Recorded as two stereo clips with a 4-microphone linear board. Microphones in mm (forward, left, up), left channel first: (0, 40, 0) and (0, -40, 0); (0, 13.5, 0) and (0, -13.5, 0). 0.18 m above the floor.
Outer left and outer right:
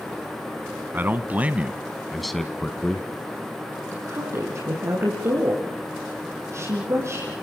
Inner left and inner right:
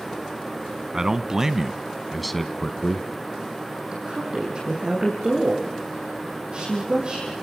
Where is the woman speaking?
40° right (ahead or behind), 6.5 m.